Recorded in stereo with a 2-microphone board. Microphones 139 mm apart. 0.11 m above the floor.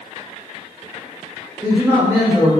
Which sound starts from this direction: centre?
A man speaking, at 1.6 s.